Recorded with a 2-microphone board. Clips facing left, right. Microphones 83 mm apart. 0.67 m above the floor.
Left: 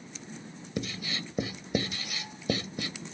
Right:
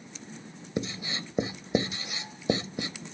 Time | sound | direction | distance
0.8 | writing | 25° right (ahead or behind) | 0.7 m